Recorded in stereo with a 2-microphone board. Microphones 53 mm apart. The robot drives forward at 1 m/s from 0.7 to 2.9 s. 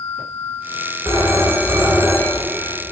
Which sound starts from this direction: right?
A phone ringing, at 1.1 s.